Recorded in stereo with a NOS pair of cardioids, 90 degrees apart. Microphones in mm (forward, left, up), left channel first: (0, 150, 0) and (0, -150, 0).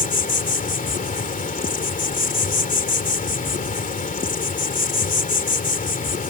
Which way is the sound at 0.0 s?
25° left.